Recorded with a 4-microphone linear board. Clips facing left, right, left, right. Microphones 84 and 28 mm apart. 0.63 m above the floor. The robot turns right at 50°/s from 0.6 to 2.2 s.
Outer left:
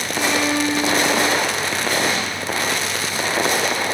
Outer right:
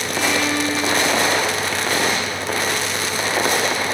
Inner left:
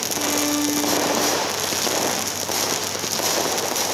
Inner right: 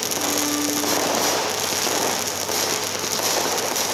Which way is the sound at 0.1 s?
25° left.